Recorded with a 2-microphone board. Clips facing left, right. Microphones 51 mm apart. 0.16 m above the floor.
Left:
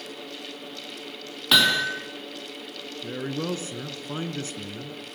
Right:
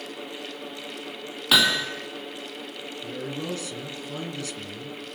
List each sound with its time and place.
1.5 s hammering: 5° right (ahead or behind), 3 m
3.0 s a man speaking: 30° left (ahead or behind), 2.0 m